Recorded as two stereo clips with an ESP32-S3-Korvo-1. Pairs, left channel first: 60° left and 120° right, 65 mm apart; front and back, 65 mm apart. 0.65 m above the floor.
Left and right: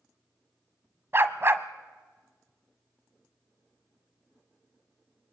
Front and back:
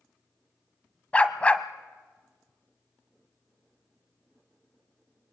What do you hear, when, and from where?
1.1 s a dog barking: 70° right, 1.1 m